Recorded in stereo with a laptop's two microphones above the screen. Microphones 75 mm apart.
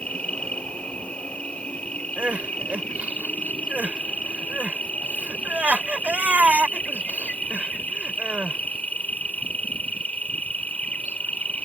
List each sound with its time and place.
0.0 s an insect: 20° left (ahead or behind)
2.2 s crying: 20° right (ahead or behind)